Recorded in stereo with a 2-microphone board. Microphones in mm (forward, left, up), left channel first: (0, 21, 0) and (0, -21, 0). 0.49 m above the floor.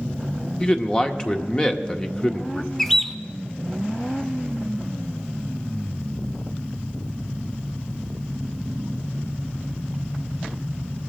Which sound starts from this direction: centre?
A bird, at 2.8 s.